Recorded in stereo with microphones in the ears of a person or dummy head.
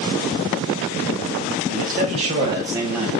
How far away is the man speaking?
About 0.8 m.